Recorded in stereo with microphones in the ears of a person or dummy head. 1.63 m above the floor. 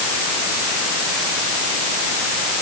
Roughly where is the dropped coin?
No dropped coin in this recording.